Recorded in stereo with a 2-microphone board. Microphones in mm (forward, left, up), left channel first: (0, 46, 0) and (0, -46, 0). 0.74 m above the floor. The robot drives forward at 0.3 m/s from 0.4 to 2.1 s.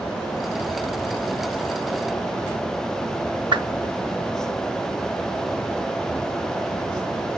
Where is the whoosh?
50° right (ahead or behind), 0.7 m.